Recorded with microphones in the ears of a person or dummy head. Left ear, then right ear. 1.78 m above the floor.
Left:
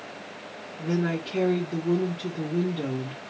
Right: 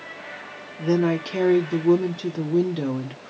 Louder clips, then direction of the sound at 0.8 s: Right 7 dB; 65° right (ahead or behind).